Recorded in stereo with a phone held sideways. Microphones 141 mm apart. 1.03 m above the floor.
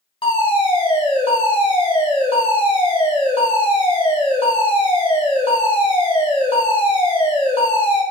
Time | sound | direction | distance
0.2 | a fire alarm | 40° left (ahead or behind) | 2.5 m